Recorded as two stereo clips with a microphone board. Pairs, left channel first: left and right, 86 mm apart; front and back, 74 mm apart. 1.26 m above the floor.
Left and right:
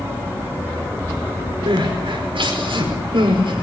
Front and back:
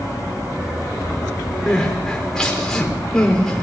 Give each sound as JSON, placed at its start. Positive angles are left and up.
{"t": 1.7, "sound": "crying", "azimuth_deg": -80, "distance_m": 5.0}